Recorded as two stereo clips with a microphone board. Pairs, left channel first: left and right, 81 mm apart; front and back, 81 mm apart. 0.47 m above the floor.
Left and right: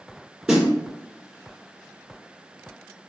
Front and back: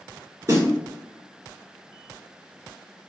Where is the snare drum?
165° right, 1.6 m.